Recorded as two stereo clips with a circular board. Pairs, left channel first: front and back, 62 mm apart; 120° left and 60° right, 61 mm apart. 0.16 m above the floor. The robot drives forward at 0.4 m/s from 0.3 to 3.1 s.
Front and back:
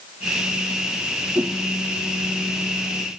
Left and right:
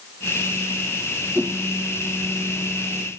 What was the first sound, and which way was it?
A whoosh, 135° right.